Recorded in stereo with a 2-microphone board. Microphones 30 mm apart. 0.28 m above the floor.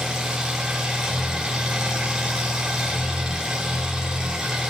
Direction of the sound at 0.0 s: 25° right (ahead or behind).